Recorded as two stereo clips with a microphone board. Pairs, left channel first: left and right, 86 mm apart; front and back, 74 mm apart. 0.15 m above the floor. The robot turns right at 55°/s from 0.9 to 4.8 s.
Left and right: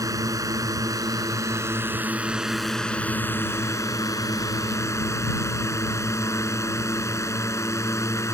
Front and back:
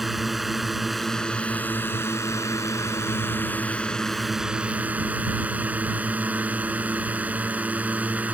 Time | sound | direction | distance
0.0 | a drone | 95° right | ?